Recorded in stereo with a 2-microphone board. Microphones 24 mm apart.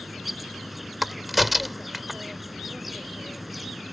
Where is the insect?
10° right (ahead or behind).